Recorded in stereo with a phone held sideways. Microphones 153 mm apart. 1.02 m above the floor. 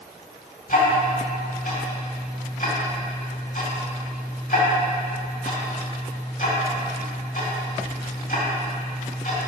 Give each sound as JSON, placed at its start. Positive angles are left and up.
{"t": 0.7, "sound": "ticking", "side_deg": 65, "distance_m": 2.0}